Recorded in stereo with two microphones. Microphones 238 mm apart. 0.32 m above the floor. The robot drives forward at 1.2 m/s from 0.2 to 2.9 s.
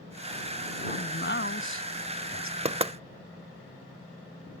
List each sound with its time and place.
0.9 s a man speaking: 45° left (ahead or behind); by 2.5 s 65° left (ahead or behind)
2.6 s knocking: 25° right (ahead or behind)